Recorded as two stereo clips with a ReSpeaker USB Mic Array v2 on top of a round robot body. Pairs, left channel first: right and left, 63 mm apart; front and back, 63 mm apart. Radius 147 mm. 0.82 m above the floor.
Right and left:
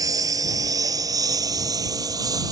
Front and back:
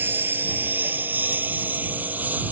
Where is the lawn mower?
120° left; by 2.5 s 115° left.